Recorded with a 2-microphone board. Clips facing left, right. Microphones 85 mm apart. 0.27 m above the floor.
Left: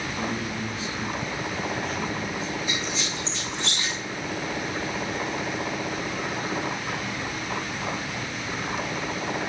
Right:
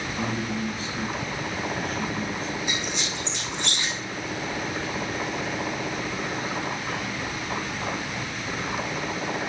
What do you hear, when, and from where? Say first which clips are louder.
0.2 s a man speaking: right 3 dB; 55° right (ahead or behind), 3 m
2.7 s a squeak: even; 75° right (ahead or behind), 3.5 m